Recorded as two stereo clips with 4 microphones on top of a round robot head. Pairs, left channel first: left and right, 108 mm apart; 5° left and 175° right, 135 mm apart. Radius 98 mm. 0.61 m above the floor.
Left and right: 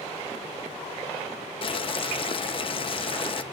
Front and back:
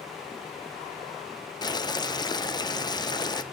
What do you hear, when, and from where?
1.6 s boiling: 60° left, 0.6 m